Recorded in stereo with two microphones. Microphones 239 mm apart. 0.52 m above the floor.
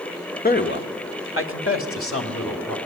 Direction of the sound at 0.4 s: 40° left (ahead or behind).